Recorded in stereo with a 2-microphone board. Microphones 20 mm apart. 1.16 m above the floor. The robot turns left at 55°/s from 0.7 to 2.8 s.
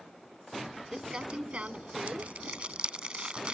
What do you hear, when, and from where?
0.9 s crumpling: 25° right (ahead or behind); by 3.5 s 50° right (ahead or behind)